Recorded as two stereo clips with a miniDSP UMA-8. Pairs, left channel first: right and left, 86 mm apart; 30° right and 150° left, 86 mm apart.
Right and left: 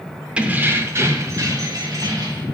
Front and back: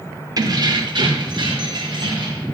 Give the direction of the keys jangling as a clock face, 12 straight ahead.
7 o'clock.